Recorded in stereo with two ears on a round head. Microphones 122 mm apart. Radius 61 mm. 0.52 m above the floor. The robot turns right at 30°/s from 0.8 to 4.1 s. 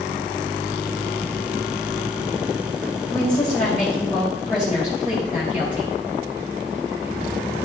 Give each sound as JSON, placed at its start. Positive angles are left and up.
{"t": 3.1, "sound": "a woman speaking", "side_deg": 15, "distance_m": 3.0}